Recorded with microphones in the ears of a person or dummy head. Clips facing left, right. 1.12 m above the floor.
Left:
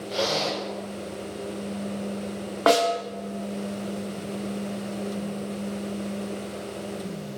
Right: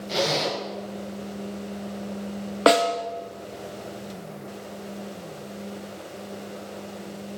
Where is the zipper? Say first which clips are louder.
Right 1 dB; 80° right, 3 m.